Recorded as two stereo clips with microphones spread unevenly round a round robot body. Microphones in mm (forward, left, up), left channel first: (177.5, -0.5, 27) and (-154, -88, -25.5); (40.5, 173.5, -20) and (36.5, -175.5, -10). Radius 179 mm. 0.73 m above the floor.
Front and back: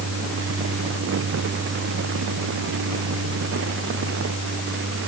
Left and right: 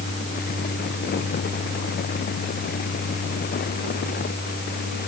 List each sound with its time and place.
Only background noise.